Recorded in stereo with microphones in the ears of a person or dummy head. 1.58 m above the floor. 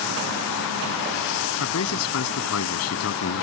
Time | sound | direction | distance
1.6 | a man speaking | 90° left | ?